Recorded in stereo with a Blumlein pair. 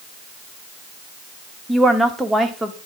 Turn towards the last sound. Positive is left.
turn(degrees=-5)